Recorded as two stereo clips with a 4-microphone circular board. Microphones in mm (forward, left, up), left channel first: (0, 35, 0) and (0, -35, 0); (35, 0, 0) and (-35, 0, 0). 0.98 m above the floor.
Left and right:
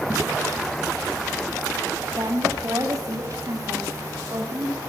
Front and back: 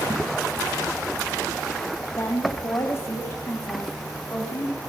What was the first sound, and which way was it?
A woman speaking, 50° right.